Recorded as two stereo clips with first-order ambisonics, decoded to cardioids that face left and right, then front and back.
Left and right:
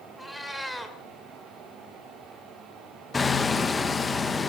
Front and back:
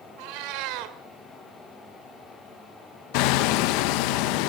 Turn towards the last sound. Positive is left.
turn(degrees=15)